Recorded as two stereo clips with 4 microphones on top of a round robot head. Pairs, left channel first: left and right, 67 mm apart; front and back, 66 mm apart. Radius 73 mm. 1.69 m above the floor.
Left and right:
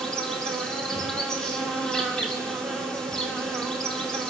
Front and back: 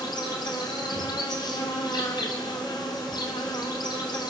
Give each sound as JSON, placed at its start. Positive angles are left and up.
{"t": 0.0, "sound": "an insect", "azimuth_deg": 10, "distance_m": 2.5}